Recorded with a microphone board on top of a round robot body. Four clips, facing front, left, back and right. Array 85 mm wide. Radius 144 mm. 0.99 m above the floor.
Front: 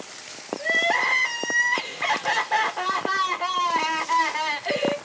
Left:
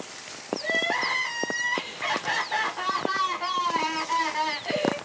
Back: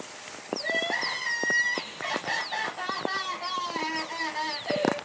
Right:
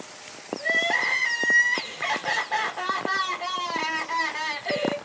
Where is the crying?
5° left, 2.5 m.